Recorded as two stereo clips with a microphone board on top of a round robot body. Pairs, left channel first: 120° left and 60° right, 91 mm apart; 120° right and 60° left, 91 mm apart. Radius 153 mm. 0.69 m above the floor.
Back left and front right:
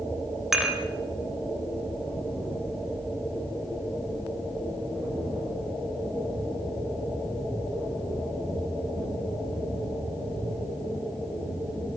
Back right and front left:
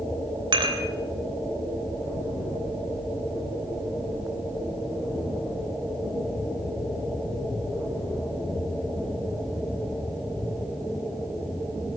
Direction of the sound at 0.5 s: 25° left.